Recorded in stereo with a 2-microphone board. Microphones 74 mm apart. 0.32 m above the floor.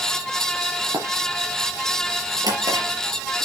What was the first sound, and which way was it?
Running footsteps, 65° right (ahead or behind).